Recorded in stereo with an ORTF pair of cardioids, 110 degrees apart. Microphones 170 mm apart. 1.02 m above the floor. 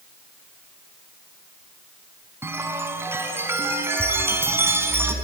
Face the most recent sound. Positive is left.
turn(degrees=-15)